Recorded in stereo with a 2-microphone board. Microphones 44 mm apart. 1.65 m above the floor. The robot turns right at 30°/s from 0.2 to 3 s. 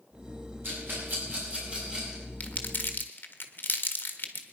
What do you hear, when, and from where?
0.6 s a rattle: 60° right (ahead or behind), 7 m; by 2.2 s 15° right (ahead or behind), 7 m
2.4 s crumpling: 35° left (ahead or behind), 1.6 m; by 4.4 s 50° left (ahead or behind), 1.6 m